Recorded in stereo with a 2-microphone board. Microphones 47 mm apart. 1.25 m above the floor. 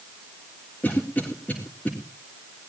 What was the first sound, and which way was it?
A cough, 35° left (ahead or behind).